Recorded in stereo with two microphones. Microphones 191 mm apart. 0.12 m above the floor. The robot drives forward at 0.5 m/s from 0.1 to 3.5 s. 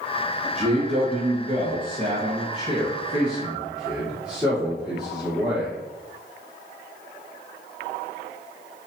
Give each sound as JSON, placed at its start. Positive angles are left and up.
{"t": 0.6, "sound": "a man speaking", "side_deg": -35, "distance_m": 1.2}